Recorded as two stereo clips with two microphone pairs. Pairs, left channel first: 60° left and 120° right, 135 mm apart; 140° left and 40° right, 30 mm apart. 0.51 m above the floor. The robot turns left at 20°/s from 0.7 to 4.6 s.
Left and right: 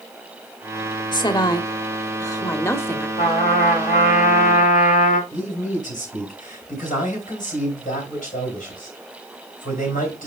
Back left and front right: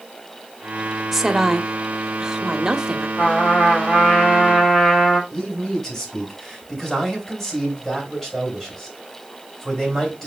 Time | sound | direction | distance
1.1 | a woman speaking | 40° left | 0.9 m
3.2 | a trumpet | 95° left | 3.5 m
5.3 | a man speaking | 55° left | 4.5 m